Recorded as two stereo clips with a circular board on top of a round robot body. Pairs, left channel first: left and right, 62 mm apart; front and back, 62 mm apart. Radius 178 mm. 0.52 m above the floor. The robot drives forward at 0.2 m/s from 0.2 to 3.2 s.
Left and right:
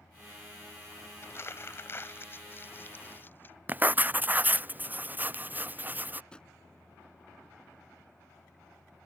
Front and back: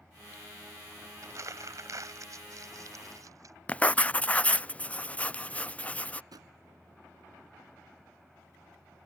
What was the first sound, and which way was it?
Crumpling, 140° left.